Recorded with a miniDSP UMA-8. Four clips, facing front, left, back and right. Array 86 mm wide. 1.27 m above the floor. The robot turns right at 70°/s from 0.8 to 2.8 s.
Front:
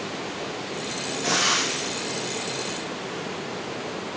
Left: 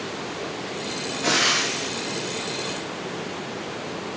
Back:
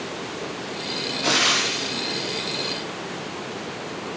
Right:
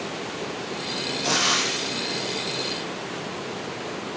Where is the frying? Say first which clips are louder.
Left 2 dB, back 2 dB; 160° left, 3 m; by 2.7 s 95° right, 3 m.